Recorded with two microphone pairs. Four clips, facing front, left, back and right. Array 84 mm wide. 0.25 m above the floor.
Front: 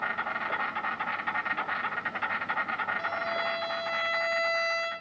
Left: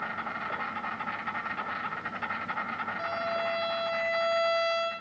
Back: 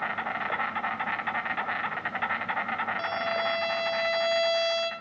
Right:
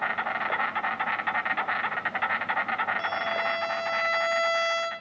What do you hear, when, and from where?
0.0 s an insect: 115° right, 3 m
3.0 s a violin: 155° right, 4 m